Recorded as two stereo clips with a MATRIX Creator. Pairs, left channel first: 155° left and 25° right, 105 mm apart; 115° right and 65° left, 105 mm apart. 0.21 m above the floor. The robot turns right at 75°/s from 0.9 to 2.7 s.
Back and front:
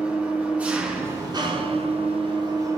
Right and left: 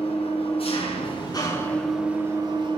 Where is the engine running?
100° right, 2.5 m; by 2.8 s 35° left, 2.5 m.